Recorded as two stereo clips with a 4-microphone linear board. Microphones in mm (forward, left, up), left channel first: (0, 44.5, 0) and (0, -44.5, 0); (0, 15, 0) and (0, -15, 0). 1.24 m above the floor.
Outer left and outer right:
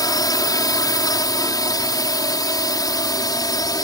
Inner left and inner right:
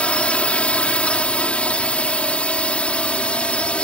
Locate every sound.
0.0 s a drone: 45° left (ahead or behind)